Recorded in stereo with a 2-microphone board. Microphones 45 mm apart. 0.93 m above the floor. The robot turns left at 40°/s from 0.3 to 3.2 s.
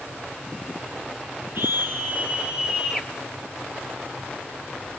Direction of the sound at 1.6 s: 130° right.